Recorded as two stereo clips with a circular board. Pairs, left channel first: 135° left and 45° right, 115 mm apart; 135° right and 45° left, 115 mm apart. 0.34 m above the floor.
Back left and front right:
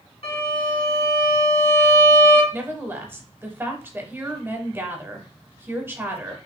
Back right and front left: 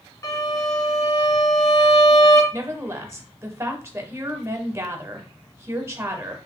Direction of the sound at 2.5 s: 5° left.